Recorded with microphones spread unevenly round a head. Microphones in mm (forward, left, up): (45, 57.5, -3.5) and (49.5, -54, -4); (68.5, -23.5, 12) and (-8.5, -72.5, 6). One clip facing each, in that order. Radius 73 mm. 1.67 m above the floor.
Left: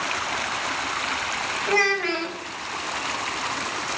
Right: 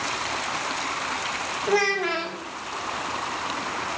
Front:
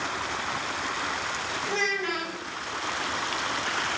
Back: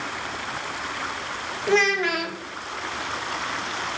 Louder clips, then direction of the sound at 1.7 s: Right 1 dB, back 10 dB; 170° right.